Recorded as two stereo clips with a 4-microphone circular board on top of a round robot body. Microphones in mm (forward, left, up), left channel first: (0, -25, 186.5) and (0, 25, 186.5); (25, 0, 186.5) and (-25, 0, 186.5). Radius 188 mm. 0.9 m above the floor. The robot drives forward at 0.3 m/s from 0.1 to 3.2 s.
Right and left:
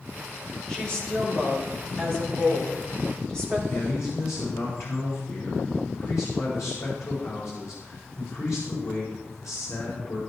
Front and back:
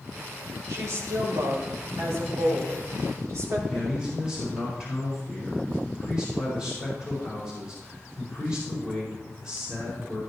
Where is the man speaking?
105° right, 4.5 m.